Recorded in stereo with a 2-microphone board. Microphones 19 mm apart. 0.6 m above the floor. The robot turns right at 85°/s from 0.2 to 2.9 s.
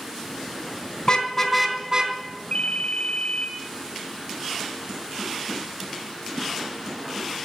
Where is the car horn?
135° left, 3.5 m; by 2.1 s 125° right, 3.5 m.